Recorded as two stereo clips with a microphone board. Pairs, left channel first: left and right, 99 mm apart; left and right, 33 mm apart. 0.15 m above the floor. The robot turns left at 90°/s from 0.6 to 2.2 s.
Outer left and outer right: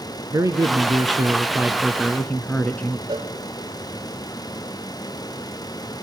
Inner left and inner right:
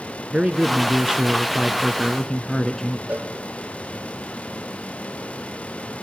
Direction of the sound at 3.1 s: 45° right (ahead or behind).